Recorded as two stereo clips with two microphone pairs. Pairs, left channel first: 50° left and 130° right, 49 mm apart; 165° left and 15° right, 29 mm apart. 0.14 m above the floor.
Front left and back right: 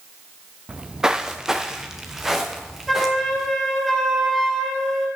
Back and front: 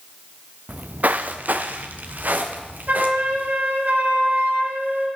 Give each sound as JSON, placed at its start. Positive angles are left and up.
{"t": 0.7, "sound": "footsteps", "azimuth_deg": -60, "distance_m": 0.6}
{"t": 2.9, "sound": "a flute", "azimuth_deg": -35, "distance_m": 3.0}